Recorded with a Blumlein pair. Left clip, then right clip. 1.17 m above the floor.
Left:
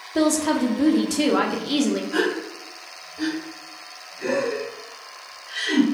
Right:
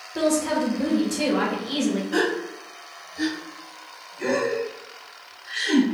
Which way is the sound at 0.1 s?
20° left.